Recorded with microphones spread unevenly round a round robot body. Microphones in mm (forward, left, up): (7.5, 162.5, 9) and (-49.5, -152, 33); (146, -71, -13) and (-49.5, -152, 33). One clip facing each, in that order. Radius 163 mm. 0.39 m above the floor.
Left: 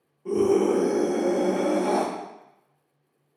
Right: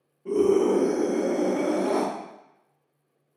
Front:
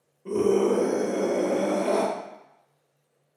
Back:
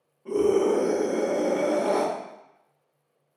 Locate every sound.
0.2 s a scream: 30° left, 1.2 m